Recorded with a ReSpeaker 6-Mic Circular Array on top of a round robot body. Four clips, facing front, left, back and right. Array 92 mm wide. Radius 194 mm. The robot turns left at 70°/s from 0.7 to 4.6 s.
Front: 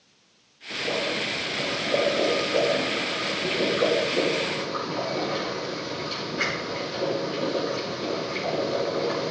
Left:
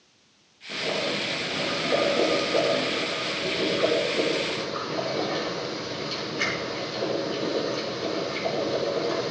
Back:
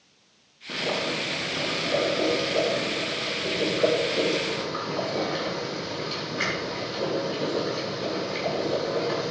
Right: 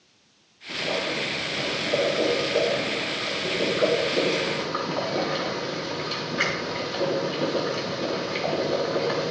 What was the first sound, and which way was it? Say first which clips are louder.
Boiling: even, even; 175° right.